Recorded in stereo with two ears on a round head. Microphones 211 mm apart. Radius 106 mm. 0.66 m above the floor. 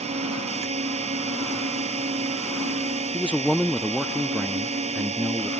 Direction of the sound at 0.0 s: 30° right (ahead or behind).